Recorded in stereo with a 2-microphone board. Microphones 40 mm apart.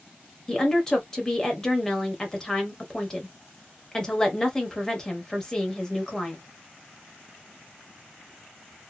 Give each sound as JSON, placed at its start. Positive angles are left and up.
{"t": 0.5, "sound": "a woman speaking", "side_deg": 15, "distance_m": 1.0}